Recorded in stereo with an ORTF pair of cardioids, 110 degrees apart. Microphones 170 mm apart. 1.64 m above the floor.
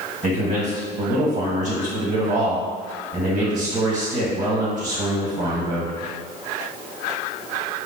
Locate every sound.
0.2 s a man speaking: 50° right, 1.3 m